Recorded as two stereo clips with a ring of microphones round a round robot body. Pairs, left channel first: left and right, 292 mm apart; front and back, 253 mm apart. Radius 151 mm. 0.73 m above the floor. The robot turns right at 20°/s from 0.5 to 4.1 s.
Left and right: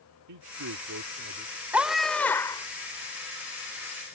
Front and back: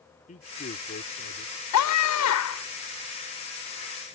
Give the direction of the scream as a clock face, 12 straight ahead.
12 o'clock.